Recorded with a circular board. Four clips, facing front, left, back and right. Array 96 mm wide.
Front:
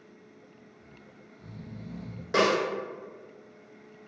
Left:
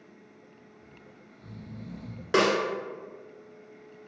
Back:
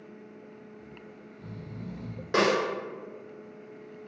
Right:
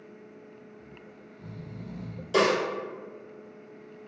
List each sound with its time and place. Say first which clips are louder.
0.8 s snoring: right 4 dB, back 5 dB; 120° right, 0.8 m
2.3 s a snare drum: even, even; 95° left, 1.2 m